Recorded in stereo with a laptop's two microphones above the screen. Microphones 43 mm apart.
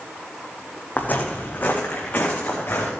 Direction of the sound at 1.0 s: 40° left (ahead or behind).